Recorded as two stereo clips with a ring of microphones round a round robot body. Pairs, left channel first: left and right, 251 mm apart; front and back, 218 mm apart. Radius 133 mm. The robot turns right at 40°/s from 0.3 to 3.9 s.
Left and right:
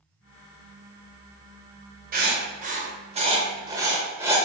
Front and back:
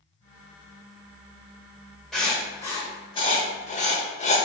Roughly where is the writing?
Right.